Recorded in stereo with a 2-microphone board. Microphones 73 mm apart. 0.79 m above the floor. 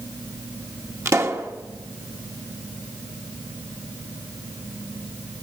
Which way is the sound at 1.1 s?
40° right (ahead or behind).